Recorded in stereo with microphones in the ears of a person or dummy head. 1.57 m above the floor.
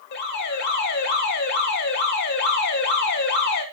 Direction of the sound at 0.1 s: 65° left (ahead or behind).